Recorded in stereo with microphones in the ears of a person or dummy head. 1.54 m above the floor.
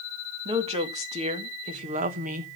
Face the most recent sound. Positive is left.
turn(degrees=-45)  # may be behind; listen again after turning